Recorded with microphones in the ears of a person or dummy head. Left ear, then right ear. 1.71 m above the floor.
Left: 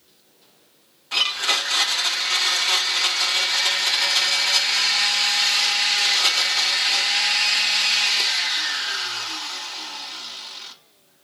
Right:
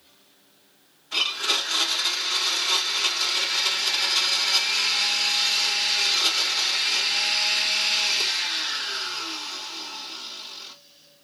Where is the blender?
30° left (ahead or behind), 1.1 m.